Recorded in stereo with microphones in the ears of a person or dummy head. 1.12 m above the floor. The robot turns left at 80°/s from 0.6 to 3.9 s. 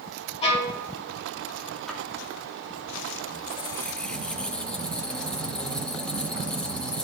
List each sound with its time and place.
0.4 s a violin: 35° left (ahead or behind), 1.9 m; by 0.8 s 45° left (ahead or behind), 1.9 m
1.9 s a splash: centre (ahead or behind), 1.3 m; by 2.0 s 10° left (ahead or behind), 1.3 m
3.3 s a squeak: 55° left, 0.7 m; by 7.0 s 10° left, 0.7 m